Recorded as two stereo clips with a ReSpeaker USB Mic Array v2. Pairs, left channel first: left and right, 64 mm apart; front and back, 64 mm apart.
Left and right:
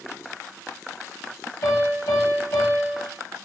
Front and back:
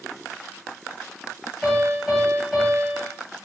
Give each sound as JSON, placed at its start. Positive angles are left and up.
{"t": 1.6, "sound": "a piano", "azimuth_deg": 95, "distance_m": 3.0}